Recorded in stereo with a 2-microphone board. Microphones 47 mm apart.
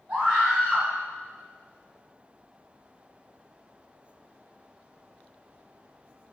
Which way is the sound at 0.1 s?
35° right (ahead or behind).